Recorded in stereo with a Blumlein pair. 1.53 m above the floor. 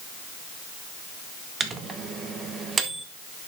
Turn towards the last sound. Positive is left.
turn(degrees=-20)